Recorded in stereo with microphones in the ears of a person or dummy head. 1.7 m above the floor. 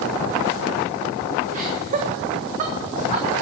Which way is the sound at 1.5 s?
40° right (ahead or behind).